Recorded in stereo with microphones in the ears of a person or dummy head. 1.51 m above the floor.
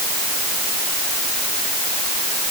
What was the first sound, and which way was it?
Only background noise.